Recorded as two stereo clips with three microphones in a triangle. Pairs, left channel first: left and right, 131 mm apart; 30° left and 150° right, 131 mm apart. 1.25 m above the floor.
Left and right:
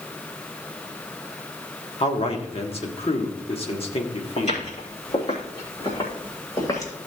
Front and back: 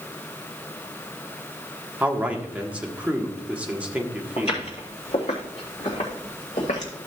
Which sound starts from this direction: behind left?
A man speaking, at 2.0 s.